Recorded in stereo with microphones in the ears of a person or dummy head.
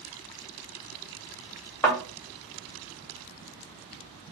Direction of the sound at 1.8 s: 15° left (ahead or behind).